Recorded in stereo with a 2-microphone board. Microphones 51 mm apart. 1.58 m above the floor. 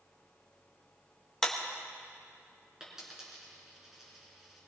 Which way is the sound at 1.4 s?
10° left (ahead or behind).